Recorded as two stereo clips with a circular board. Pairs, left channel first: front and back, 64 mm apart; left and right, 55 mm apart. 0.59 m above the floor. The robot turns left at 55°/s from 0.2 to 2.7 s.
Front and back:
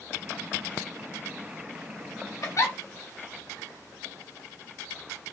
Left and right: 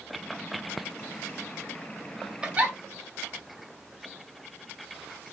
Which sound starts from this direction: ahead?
A giggle, at 2.4 s.